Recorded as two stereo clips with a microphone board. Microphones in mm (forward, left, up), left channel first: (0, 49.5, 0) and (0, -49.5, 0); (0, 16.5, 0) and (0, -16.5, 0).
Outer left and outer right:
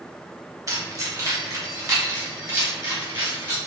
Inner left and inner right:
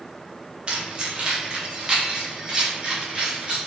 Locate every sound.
0.7 s keys jangling: 35° right (ahead or behind), 1.2 m; by 3.6 s 30° right (ahead or behind), 3 m